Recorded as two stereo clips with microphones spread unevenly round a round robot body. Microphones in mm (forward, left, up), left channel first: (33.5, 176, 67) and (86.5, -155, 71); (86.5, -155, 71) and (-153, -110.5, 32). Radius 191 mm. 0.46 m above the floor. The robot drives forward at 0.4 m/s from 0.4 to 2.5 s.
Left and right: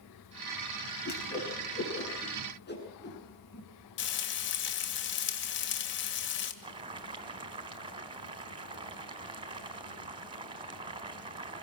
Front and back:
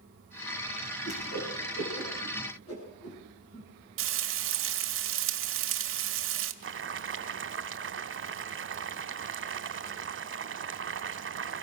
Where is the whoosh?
40° left, 8.5 m.